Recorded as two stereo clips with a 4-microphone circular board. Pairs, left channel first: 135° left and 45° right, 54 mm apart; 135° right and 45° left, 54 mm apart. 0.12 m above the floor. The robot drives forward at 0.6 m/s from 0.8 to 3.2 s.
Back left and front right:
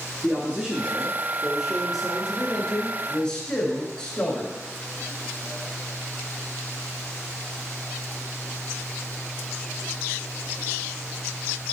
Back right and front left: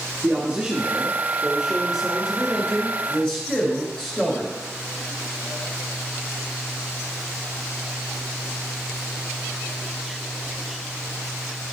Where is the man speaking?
5° left, 1.7 m; by 4.5 s 170° left, 1.6 m.